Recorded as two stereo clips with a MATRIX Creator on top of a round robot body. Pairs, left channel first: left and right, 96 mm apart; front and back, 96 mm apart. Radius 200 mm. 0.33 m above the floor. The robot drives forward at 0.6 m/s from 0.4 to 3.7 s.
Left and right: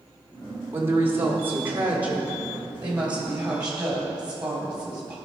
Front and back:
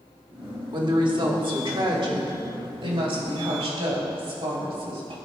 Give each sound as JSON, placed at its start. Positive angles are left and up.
{"t": 0.7, "sound": "a woman speaking", "azimuth_deg": -150, "distance_m": 1.7}